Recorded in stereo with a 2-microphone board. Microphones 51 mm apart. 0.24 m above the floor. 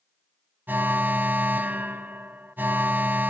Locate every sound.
0.7 s an alarm: 40° right (ahead or behind), 1.4 m